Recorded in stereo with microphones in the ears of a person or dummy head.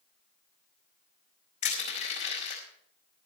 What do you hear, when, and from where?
1.6 s crushing: 40° left (ahead or behind), 4.5 m